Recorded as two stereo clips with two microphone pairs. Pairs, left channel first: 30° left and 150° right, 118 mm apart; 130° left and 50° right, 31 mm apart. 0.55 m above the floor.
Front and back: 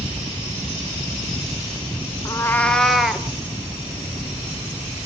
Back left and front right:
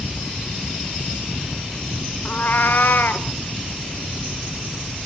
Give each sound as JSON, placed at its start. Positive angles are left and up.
{"t": 2.2, "sound": "a cat meowing", "azimuth_deg": 95, "distance_m": 1.0}